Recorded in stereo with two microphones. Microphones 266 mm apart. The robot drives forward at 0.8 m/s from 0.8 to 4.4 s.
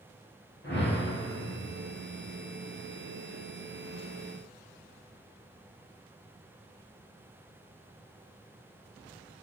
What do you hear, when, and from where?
0.6 s a whoosh: 45° left (ahead or behind), 3.5 m